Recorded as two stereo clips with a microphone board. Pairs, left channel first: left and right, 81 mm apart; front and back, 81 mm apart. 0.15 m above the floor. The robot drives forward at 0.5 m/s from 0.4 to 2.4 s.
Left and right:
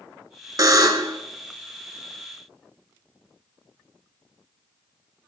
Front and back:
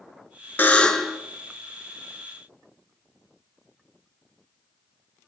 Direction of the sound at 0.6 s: 60° right.